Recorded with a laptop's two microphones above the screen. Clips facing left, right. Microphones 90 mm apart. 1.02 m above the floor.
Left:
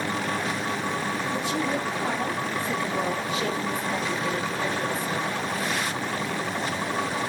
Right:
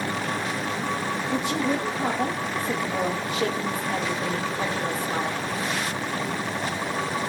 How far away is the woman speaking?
About 1.9 m.